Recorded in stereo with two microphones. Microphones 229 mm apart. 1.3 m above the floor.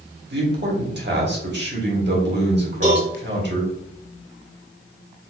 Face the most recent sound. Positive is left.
turn(degrees=-30)  # may be behind; listen again after turning